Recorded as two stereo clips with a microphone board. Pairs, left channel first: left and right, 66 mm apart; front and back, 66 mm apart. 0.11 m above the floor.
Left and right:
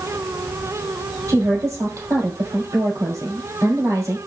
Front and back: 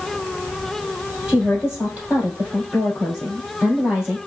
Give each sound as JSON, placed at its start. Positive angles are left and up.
{"t": 1.3, "sound": "a woman speaking", "azimuth_deg": -105, "distance_m": 2.5}